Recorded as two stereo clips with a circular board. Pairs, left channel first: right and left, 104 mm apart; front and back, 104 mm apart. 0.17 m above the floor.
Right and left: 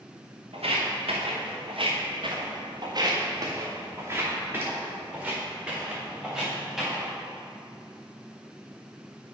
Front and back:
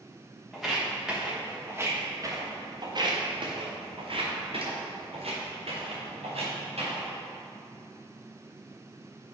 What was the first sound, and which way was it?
Footsteps, 90° left.